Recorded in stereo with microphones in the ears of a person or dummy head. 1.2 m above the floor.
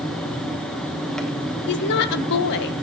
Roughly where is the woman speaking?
Left.